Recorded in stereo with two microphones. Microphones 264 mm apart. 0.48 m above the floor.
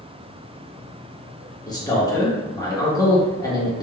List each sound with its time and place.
1.7 s a man speaking: 15° left (ahead or behind), 0.8 m